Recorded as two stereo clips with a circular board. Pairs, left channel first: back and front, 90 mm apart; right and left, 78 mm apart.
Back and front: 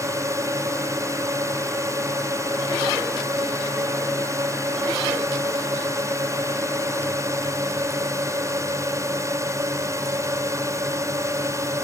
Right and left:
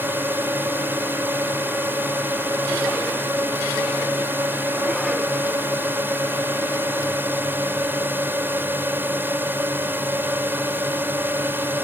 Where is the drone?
40° left.